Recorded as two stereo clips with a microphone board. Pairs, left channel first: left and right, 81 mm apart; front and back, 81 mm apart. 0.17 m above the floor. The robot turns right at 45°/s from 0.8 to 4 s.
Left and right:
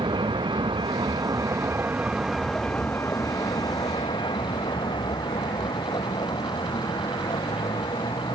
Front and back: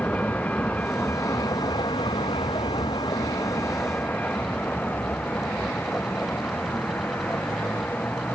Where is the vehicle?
70° right; by 8.4 s 70° left.